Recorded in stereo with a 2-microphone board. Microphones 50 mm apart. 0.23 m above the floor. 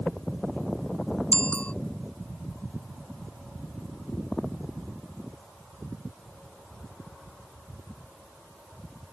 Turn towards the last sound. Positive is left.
turn(degrees=25)  # may be behind; listen again after turning